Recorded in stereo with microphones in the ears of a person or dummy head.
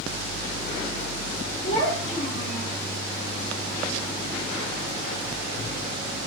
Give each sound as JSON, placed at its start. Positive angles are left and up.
{"t": 1.6, "sound": "a child speaking", "side_deg": 35, "distance_m": 1.7}